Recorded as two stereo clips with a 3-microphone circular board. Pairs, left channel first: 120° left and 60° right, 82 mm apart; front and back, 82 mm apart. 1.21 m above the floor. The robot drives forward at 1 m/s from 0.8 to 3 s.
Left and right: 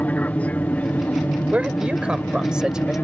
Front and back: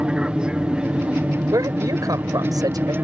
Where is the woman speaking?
135° right; by 2.9 s 140° right.